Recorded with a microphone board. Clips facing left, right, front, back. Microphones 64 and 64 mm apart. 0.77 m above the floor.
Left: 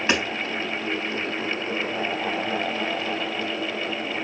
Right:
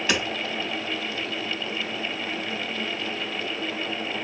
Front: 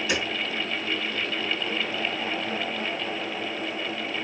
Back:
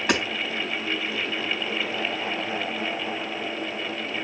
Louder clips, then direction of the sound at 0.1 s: Left 2 dB, back 5 dB; 150° left.